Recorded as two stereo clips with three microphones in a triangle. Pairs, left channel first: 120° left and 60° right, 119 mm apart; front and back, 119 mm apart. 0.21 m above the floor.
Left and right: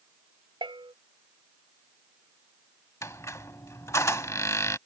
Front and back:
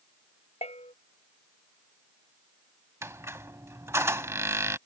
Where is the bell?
15° right.